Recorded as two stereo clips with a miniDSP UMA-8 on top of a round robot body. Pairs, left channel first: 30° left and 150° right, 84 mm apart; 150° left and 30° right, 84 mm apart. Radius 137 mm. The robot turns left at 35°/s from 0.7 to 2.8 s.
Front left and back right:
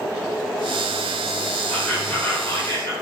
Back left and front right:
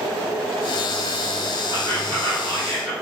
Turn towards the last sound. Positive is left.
turn(degrees=65)